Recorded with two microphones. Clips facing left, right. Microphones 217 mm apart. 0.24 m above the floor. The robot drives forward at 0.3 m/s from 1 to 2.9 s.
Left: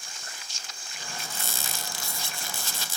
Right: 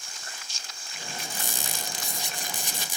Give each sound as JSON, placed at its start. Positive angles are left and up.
{"t": 1.2, "sound": "a squeak", "side_deg": -15, "distance_m": 0.6}